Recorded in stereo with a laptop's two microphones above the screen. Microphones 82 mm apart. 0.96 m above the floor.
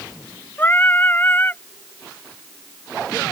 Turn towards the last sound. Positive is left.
turn(degrees=25)  # may be behind; listen again after turning